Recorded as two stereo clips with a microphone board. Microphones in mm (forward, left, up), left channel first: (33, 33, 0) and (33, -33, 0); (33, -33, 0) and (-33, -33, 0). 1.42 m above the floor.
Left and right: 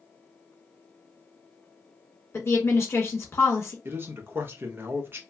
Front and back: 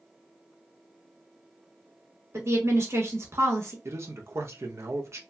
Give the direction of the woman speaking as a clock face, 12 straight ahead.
8 o'clock.